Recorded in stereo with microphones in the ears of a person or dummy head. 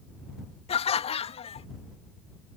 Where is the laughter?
35° left (ahead or behind).